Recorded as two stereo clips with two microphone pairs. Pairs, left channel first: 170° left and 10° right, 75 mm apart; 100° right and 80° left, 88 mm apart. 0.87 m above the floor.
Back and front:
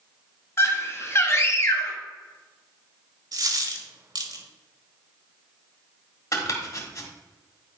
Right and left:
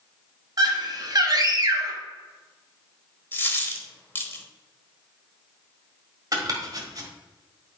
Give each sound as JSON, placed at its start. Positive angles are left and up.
{"t": 0.6, "sound": "a scream", "azimuth_deg": 120, "distance_m": 1.4}
{"t": 3.3, "sound": "a dropped coin", "azimuth_deg": -35, "distance_m": 1.1}
{"t": 6.3, "sound": "chopping", "azimuth_deg": 125, "distance_m": 1.7}